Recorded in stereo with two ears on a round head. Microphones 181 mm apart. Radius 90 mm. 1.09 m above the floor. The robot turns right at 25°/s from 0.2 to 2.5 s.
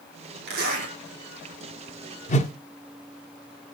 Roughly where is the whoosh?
Left.